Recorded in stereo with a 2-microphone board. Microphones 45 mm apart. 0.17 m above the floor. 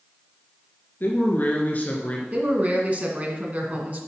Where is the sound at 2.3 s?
35° right (ahead or behind), 2 m.